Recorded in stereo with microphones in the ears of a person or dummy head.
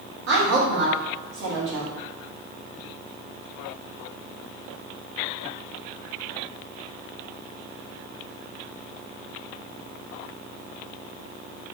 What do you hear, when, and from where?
0.3 s a woman speaking: 55° right (ahead or behind), 0.9 m